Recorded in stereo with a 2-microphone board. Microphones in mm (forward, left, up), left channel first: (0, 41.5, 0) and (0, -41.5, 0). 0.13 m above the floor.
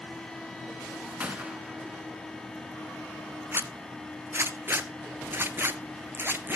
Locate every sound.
1.2 s a gunshot: 15° right (ahead or behind), 1.5 m
3.5 s a zipper: 25° right (ahead or behind), 0.8 m